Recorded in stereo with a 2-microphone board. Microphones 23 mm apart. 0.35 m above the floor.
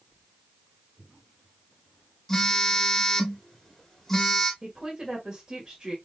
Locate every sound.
2.3 s a phone buzzing: 20° left (ahead or behind), 1.1 m
4.6 s a woman speaking: 20° right (ahead or behind), 1.5 m